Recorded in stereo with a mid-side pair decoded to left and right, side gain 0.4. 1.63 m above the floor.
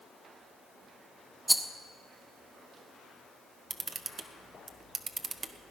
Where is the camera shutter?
45° right, 1.0 m.